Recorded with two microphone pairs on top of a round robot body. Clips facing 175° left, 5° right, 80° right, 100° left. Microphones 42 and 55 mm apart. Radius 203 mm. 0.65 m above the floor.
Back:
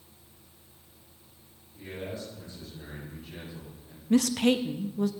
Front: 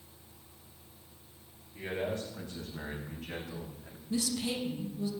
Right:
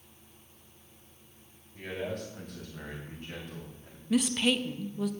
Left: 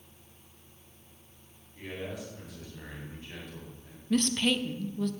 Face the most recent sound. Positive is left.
turn(degrees=-165)